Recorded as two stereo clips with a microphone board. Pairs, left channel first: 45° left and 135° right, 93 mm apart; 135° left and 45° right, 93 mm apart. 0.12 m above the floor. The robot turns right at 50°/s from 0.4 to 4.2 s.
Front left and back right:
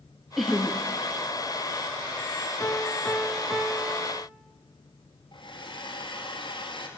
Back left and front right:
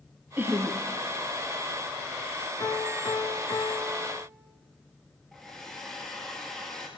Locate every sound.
0.4 s laughter: 45° right, 1.2 m; by 0.8 s 25° right, 1.2 m
2.6 s a piano: 95° left, 0.9 m; by 4.3 s 175° left, 0.9 m
5.3 s a hair dryer: 45° left, 1.9 m